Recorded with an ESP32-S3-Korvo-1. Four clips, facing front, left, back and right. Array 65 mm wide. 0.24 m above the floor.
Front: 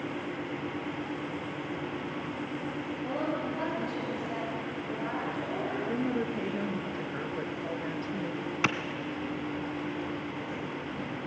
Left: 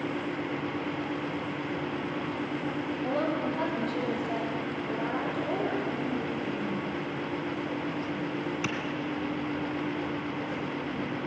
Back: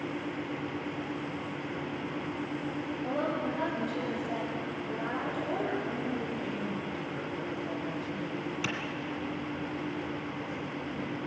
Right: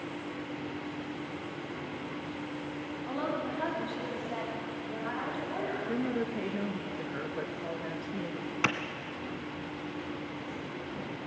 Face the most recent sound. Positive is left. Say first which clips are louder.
# right 3 dB, front 9 dB
turn(degrees=-35)